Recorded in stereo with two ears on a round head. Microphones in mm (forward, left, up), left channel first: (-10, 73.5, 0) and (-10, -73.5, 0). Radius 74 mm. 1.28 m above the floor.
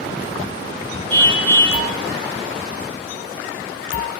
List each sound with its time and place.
1.1 s a car horn: 15° left (ahead or behind), 6.5 m